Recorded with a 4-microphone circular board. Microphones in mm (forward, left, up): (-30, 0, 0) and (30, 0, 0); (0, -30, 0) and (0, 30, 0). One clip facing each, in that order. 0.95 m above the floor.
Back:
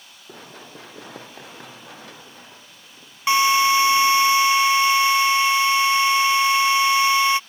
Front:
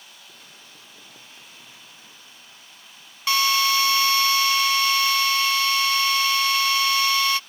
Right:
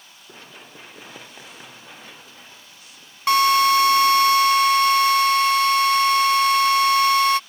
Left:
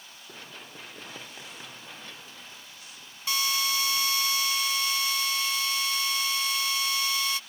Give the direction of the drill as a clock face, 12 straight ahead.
4 o'clock.